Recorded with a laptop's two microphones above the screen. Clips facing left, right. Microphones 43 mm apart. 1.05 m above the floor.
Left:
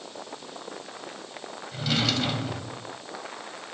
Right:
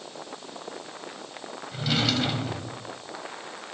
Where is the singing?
No singing in this recording.